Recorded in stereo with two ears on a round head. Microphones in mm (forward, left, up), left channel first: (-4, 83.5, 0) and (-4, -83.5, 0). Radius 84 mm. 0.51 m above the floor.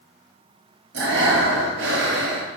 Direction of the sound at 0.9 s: 60° right (ahead or behind).